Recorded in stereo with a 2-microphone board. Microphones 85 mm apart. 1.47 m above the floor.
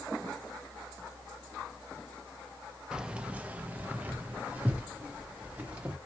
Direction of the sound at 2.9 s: 10° right (ahead or behind).